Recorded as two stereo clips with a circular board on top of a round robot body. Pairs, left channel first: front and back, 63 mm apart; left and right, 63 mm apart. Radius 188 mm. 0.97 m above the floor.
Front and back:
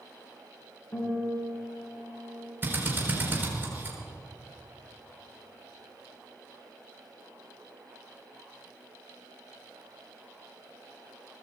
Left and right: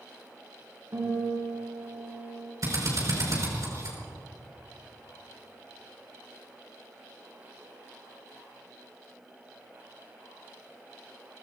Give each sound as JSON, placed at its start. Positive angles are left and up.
{"t": 0.9, "sound": "a guitar", "azimuth_deg": -50, "distance_m": 7.0}
{"t": 2.6, "sound": "a drill", "azimuth_deg": -125, "distance_m": 5.5}